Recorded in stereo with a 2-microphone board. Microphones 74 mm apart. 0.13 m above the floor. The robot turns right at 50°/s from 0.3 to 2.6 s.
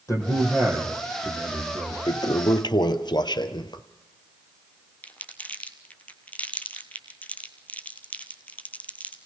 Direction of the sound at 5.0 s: 20° left (ahead or behind).